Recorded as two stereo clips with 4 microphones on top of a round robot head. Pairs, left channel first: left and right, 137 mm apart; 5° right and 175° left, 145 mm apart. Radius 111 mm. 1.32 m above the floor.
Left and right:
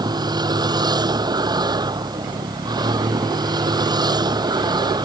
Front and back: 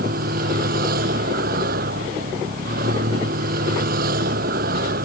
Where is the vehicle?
150° right.